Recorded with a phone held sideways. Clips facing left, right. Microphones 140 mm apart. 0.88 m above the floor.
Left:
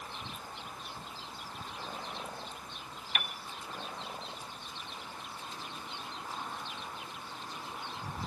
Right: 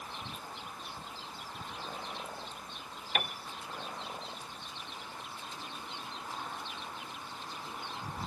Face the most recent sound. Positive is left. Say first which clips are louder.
# right 5 dB
turn(degrees=-40)  # may be behind; listen again after turning